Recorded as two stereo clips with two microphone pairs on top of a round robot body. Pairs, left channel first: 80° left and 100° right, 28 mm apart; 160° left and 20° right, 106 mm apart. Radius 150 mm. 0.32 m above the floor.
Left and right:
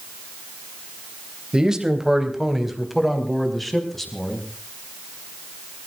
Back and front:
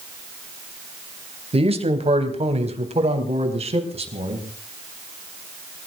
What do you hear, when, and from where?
1.5 s a man speaking: 35° right, 3 m; by 4.4 s straight ahead, 5 m